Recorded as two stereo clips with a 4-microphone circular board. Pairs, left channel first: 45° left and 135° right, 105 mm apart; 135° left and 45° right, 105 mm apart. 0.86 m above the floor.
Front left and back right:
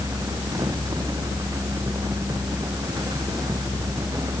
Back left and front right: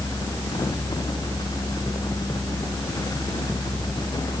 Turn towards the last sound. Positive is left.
No sound to turn to.